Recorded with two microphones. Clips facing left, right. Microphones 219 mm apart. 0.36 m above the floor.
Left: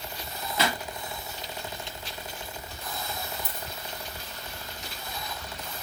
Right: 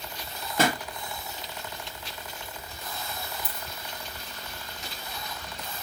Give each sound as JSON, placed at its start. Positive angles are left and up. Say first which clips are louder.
{"t": 0.6, "sound": "a pop", "louder": "right 4 dB", "side_deg": -50, "distance_m": 0.9}
{"t": 3.4, "sound": "a dropped coin", "louder": "left 1 dB", "side_deg": -15, "distance_m": 3.5}